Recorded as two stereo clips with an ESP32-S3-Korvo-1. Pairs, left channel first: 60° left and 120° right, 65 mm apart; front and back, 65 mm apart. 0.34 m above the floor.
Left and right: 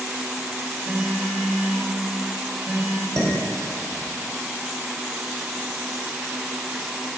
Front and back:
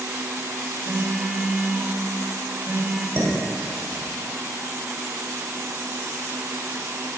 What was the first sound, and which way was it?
A phone buzzing, 175° right.